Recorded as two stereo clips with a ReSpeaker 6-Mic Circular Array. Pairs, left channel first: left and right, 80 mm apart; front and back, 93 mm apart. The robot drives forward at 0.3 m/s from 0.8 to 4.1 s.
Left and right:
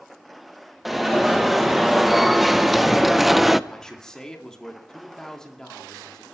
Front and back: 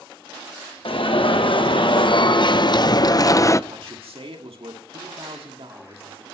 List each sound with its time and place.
0.8 s an alarm: straight ahead, 1.2 m; by 3.6 s 5° right, 0.5 m
3.7 s a man speaking: 170° left, 1.8 m; by 6.2 s 175° left, 1.9 m